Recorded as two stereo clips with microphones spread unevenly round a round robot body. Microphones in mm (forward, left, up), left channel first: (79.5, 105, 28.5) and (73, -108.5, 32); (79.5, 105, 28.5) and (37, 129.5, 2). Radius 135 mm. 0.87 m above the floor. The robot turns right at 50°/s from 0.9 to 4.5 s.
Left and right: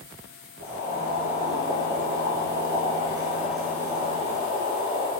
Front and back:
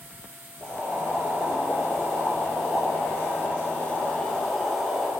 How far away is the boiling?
About 2.5 m.